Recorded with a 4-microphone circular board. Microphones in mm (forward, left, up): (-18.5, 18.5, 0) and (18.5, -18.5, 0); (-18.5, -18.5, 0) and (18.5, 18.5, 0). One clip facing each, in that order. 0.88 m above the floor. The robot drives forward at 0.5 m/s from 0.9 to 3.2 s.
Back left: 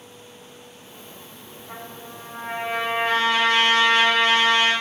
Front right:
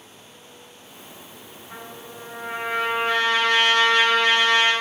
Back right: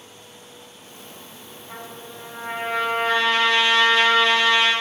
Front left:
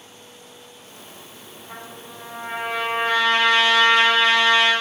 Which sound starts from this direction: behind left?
A trumpet, at 1.7 s.